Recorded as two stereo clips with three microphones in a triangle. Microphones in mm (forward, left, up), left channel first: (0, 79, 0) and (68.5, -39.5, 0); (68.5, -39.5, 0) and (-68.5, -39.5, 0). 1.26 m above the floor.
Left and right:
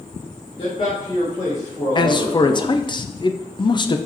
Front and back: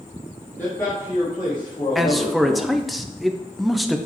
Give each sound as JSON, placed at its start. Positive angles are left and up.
{"t": 0.6, "sound": "a man speaking", "azimuth_deg": 75, "distance_m": 1.7}
{"t": 1.9, "sound": "a man speaking", "azimuth_deg": 90, "distance_m": 0.5}